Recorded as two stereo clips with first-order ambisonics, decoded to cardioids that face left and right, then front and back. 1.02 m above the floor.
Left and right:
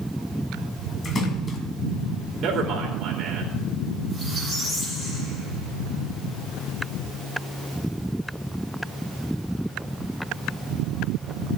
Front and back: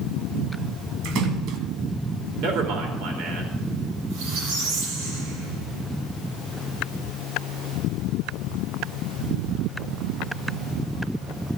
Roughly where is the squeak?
Behind.